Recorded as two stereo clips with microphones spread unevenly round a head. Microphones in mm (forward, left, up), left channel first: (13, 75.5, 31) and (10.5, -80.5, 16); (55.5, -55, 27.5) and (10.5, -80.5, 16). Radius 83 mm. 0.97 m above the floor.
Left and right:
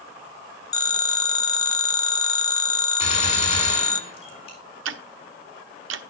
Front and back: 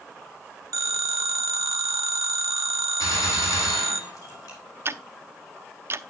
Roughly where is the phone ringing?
Behind left.